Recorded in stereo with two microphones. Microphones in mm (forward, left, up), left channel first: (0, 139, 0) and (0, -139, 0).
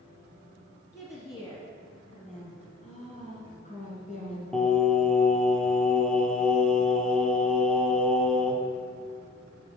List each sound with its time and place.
0.9 s a woman speaking: 10° left (ahead or behind), 2 m; by 2.7 s 30° left (ahead or behind), 1.4 m
2.8 s a woman speaking: 25° left (ahead or behind), 2.5 m
4.5 s singing: 5° left (ahead or behind), 0.9 m